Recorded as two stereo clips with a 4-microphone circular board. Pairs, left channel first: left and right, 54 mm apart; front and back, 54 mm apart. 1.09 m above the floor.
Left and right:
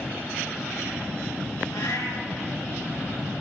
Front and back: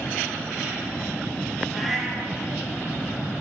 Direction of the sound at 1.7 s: 90° left.